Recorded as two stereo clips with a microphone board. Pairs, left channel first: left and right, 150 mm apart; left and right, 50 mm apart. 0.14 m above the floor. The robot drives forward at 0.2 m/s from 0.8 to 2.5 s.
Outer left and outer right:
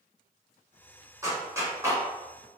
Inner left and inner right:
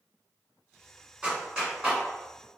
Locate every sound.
1.2 s a clap: 20° right (ahead or behind), 1.2 m